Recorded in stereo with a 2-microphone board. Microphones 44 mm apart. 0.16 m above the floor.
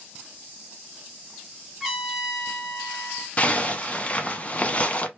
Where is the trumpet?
10° right (ahead or behind), 1.3 m.